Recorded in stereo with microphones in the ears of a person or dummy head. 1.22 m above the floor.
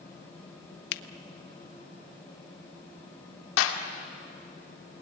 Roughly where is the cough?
No cough in this recording.